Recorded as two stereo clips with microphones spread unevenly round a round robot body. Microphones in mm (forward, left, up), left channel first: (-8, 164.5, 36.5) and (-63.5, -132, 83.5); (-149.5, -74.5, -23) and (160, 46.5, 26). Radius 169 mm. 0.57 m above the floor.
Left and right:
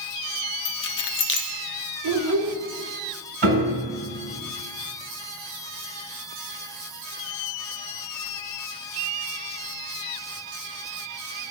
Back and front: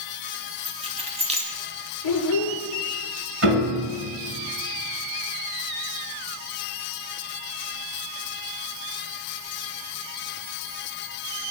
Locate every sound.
0.7 s keys jangling: 95° left, 0.6 m
2.0 s a child speaking: 135° right, 1.0 m
3.4 s a piano: 30° right, 2 m